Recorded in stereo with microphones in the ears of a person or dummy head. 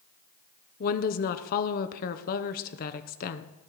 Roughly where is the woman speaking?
Left.